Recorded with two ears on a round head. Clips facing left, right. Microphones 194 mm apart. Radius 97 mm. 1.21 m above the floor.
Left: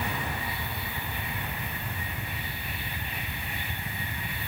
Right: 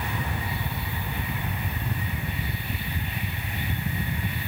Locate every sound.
Only background noise.